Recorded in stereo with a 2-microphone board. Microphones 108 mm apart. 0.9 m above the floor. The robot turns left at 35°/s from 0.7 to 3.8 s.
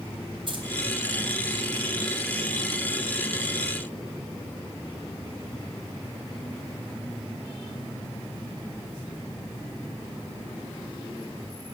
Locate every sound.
0.5 s keys jangling: 50° right (ahead or behind), 4 m